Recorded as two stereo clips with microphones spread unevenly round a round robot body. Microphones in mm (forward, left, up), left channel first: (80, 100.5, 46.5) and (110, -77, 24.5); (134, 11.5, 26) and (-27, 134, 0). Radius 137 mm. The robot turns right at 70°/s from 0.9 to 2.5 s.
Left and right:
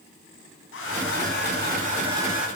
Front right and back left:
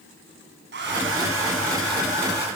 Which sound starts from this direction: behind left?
A hair dryer, at 0.7 s.